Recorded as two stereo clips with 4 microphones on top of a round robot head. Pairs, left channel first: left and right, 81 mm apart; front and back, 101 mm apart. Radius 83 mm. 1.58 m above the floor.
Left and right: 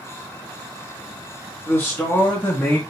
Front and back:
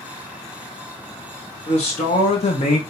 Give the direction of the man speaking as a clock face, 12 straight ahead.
11 o'clock.